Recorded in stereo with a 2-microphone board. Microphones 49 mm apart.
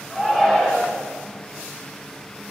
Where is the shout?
15° left (ahead or behind), 4.5 m.